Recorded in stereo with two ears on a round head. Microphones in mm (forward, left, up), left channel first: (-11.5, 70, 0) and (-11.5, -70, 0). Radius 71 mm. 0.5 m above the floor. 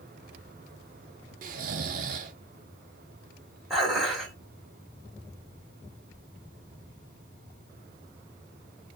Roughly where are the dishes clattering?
Centre.